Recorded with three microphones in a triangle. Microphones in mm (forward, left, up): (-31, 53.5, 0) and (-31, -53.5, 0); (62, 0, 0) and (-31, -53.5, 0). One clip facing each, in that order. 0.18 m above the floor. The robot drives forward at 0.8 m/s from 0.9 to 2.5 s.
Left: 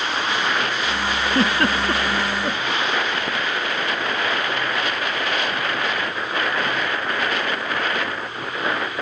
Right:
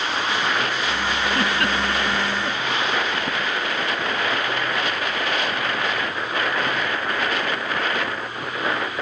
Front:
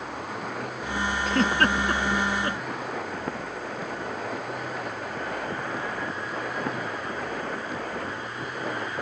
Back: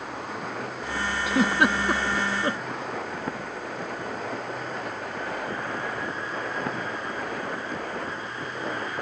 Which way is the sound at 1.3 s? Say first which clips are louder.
Left 4 dB, back 1 dB; 130° left.